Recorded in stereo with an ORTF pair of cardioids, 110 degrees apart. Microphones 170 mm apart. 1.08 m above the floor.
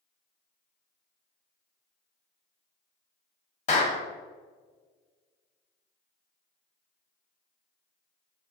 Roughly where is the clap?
Ahead left.